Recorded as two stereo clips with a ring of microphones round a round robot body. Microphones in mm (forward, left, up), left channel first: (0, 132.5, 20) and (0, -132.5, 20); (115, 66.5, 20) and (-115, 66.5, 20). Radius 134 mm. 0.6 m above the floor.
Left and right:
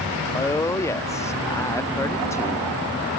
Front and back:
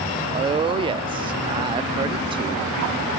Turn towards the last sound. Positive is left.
turn(degrees=155)